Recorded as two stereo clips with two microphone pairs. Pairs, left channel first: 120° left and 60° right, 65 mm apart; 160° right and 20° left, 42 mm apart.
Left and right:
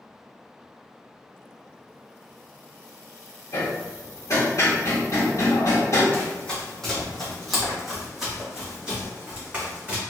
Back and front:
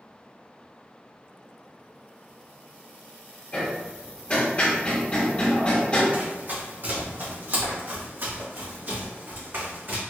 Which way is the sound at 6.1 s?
50° left.